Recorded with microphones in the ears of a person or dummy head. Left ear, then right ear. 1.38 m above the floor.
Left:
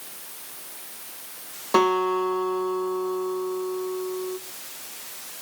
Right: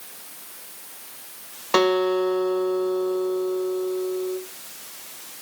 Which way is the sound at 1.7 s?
80° right.